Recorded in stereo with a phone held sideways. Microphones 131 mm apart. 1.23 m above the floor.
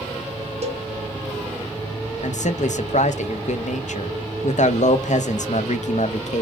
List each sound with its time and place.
0.6 s a cowbell: 50° right (ahead or behind), 0.7 m
2.2 s a man speaking: 65° left (ahead or behind), 0.5 m